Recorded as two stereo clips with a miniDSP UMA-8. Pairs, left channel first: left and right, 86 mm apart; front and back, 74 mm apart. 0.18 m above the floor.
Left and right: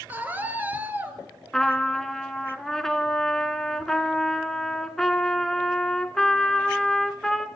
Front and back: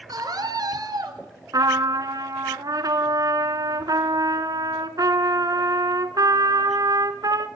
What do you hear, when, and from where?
0.1 s a scream: 160° right, 3 m
1.5 s a trumpet: 175° left, 1.3 m